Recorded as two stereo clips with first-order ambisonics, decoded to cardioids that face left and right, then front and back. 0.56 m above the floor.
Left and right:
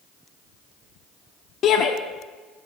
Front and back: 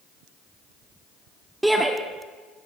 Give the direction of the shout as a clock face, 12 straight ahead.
9 o'clock.